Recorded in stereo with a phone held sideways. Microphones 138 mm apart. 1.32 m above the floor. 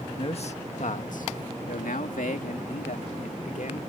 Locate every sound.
0.2 s a man speaking: 45° left (ahead or behind); by 3.8 s 70° left (ahead or behind)